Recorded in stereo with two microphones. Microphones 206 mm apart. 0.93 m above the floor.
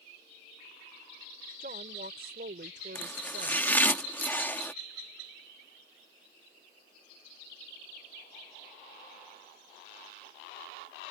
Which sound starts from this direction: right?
A woman speaking, at 1.6 s.